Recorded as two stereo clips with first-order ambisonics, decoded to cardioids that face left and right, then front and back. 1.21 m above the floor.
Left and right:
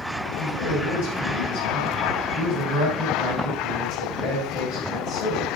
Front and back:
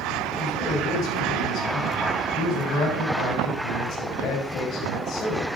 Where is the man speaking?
55° left, 7.5 m.